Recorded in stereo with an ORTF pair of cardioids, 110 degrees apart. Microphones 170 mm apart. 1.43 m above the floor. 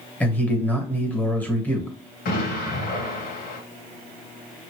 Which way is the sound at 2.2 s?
60° left.